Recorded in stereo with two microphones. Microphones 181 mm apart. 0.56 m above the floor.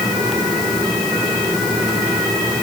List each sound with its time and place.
Only background noise.